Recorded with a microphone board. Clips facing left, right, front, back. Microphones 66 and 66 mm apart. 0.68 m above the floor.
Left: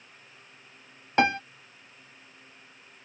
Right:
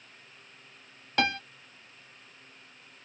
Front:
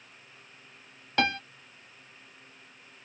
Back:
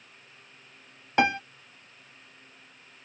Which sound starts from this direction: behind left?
A piano, at 1.2 s.